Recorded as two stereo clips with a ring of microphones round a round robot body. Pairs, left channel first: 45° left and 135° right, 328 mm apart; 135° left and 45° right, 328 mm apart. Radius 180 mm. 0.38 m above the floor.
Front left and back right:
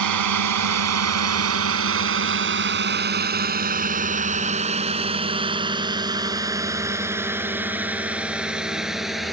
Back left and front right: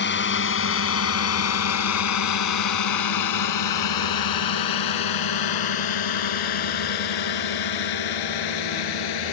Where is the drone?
165° right; by 9.3 s 135° left.